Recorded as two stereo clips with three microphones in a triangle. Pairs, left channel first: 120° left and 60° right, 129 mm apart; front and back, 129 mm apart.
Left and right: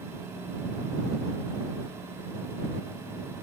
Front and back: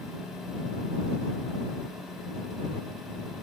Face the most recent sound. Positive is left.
No sound to turn to.